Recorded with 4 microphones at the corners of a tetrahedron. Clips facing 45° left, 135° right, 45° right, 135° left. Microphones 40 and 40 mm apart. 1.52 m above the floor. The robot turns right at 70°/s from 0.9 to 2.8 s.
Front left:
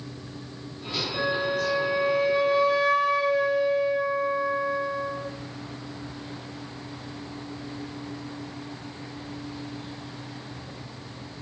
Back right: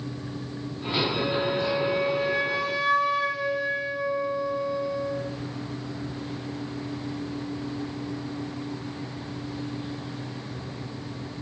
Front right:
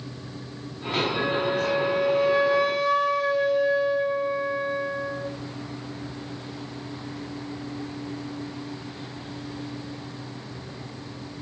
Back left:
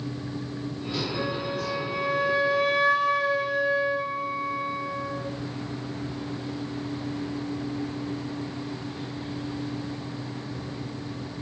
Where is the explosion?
No explosion in this recording.